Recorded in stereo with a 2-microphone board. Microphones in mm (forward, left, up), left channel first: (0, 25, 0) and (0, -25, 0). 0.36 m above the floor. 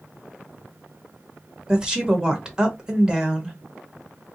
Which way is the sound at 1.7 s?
15° right (ahead or behind).